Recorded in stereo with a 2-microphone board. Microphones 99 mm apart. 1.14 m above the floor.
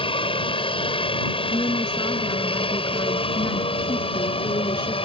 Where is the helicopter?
65° left (ahead or behind).